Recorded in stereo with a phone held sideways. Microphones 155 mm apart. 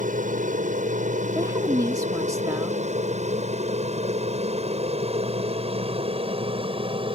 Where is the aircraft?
55° right (ahead or behind); by 7.2 s 35° right (ahead or behind).